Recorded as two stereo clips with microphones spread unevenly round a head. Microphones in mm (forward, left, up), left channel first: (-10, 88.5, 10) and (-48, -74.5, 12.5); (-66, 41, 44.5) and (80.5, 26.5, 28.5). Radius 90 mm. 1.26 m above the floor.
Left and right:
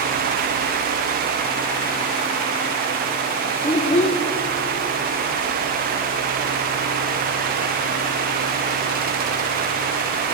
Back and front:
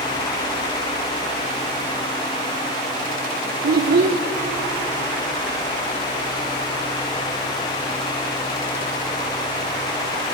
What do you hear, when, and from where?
3.6 s a child speaking: 20° left, 0.5 m